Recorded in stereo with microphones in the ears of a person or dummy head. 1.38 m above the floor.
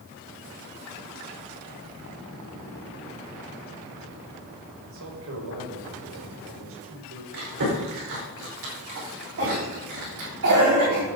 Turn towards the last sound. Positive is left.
turn(degrees=-75)  # may be behind; listen again after turning